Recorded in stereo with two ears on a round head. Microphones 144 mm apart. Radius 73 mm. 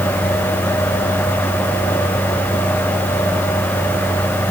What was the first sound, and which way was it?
Only background noise.